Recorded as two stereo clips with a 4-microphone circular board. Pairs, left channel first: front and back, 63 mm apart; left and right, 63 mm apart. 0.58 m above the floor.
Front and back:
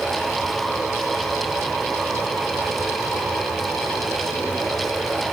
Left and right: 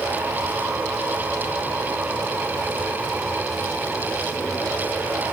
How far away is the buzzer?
I don't hear a buzzer.